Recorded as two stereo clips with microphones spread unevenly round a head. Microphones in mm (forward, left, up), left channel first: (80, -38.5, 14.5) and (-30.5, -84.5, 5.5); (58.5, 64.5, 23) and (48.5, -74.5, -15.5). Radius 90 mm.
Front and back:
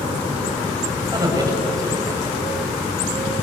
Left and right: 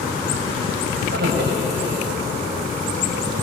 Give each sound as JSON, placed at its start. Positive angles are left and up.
{"t": 1.1, "sound": "a man speaking", "azimuth_deg": -100, "distance_m": 7.5}